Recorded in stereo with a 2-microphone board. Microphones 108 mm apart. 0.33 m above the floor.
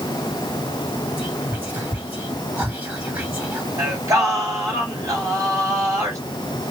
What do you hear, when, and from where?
1.2 s whispering: 15° right (ahead or behind), 2 m
3.8 s singing: 30° right (ahead or behind), 1.8 m